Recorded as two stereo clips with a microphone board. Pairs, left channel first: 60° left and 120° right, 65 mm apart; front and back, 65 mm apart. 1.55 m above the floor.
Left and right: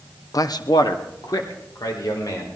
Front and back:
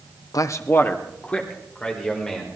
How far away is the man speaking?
About 0.6 m.